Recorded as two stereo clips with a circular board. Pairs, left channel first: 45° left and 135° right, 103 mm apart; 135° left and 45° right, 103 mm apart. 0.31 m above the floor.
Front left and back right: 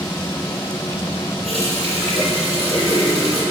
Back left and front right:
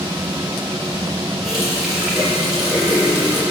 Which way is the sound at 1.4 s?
130° right.